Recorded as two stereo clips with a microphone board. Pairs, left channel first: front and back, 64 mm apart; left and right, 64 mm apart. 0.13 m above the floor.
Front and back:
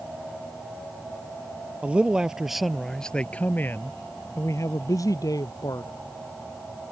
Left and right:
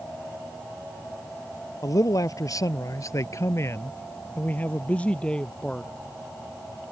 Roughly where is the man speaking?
Left.